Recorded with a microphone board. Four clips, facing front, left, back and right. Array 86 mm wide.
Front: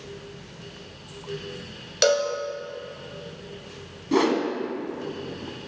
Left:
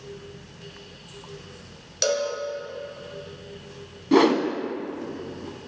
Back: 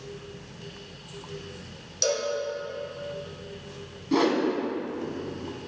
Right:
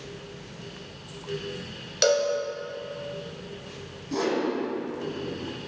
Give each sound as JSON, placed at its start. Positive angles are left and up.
{"t": 2.0, "sound": "a cowbell", "azimuth_deg": -25, "distance_m": 0.9}
{"t": 4.1, "sound": "a whoosh", "azimuth_deg": 80, "distance_m": 0.6}